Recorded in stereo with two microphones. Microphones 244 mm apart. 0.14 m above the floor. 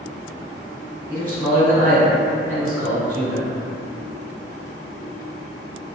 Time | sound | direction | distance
1.1 | a man speaking | 20° right (ahead or behind) | 1.4 m